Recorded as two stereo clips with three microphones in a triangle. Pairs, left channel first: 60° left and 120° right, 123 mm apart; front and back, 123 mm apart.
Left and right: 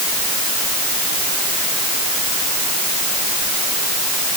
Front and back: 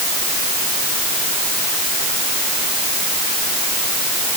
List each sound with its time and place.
Only background noise.